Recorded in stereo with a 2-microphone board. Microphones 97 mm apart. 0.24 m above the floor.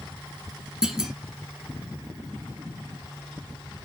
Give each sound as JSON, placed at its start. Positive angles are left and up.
{"t": 0.8, "sound": "a clunk", "side_deg": -5, "distance_m": 0.6}